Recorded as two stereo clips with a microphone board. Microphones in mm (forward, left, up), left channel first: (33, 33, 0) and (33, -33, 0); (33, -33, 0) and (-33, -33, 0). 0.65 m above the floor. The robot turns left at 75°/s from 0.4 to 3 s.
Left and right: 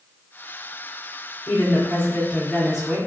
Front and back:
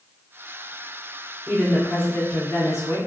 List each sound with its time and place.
1.5 s a woman speaking: 85° left, 1.8 m; by 3.0 s 30° right, 1.8 m